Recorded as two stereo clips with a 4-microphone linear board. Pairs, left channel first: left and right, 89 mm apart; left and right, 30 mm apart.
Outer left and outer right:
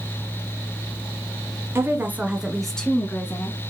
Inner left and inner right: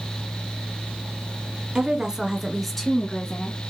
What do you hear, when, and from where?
1.8 s a woman speaking: 30° right (ahead or behind), 1.5 m; by 3.6 s 35° left (ahead or behind), 1.5 m